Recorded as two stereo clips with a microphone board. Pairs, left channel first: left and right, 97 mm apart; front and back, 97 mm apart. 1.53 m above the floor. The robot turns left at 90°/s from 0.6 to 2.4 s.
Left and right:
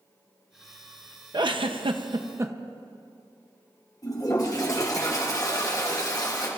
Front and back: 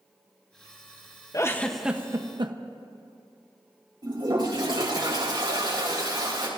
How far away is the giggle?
About 0.8 m.